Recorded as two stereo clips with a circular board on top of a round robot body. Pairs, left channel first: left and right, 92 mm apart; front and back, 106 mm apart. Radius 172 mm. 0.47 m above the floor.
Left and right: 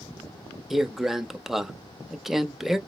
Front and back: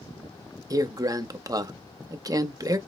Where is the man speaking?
175° right, 0.8 m.